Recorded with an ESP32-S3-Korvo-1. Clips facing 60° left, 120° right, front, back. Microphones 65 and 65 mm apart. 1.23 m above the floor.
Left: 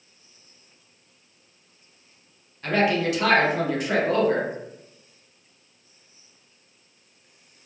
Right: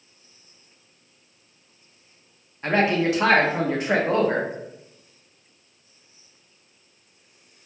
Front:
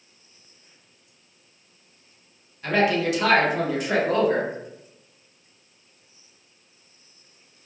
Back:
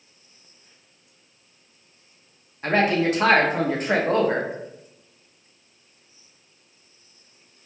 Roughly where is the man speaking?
Behind.